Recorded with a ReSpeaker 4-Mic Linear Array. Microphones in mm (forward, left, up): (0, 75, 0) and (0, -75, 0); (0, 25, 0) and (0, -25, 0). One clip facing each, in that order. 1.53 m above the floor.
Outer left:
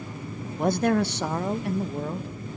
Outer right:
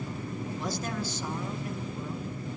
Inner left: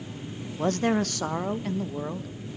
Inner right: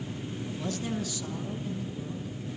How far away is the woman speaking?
About 1.0 m.